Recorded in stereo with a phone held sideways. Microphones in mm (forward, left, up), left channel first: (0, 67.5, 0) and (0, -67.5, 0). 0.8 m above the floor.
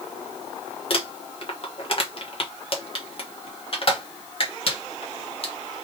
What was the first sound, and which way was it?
Crumpling, 45° left (ahead or behind).